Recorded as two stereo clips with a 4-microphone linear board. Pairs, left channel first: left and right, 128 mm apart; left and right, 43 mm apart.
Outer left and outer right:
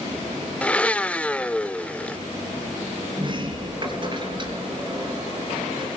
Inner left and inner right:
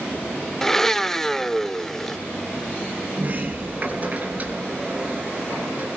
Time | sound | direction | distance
0.6 | a blender | 10° left (ahead or behind) | 0.5 m
3.2 | a sliding door | 35° right (ahead or behind) | 4.5 m